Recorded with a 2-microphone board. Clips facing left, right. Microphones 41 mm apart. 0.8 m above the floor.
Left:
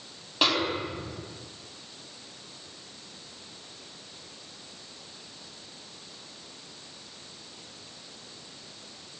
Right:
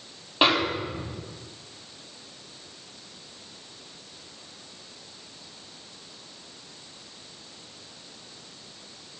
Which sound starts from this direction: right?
A snare drum, at 0.4 s.